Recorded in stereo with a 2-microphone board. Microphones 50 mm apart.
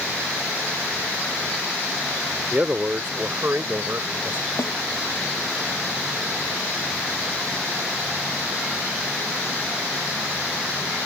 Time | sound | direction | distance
2.5 | a man speaking | 30° right (ahead or behind) | ?
4.6 | a snare drum | 65° left (ahead or behind) | ?